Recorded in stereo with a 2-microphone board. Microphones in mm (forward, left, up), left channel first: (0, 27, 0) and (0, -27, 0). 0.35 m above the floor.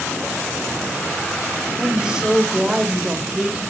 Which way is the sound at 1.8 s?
10° right (ahead or behind).